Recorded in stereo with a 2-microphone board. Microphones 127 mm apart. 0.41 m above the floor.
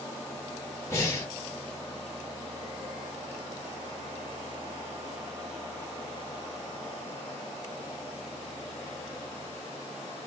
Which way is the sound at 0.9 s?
25° left (ahead or behind).